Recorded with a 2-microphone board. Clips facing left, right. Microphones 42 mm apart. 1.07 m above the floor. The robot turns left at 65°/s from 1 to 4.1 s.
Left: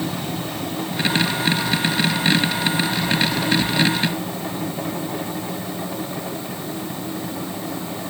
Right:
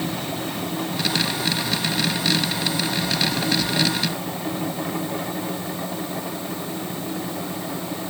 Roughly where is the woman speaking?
No woman speaking in this recording.